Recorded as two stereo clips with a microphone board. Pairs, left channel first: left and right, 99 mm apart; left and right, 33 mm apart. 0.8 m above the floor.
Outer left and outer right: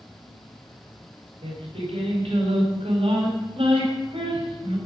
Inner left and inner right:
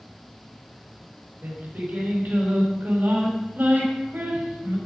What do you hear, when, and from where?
0.0 s an insect: 25° left (ahead or behind), 2.5 m
1.4 s singing: 70° right (ahead or behind), 4.5 m